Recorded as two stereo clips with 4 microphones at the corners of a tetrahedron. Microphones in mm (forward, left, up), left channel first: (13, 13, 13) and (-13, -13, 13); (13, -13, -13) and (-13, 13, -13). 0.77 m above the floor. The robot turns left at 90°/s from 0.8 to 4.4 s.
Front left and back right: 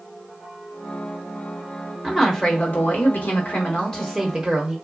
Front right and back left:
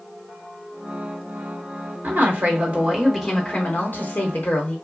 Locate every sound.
2.0 s a woman speaking: 150° left, 1.1 m; by 4.8 s 65° right, 1.1 m